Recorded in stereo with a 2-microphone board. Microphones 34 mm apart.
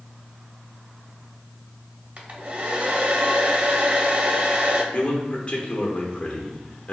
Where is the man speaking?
35° left (ahead or behind), 0.8 m.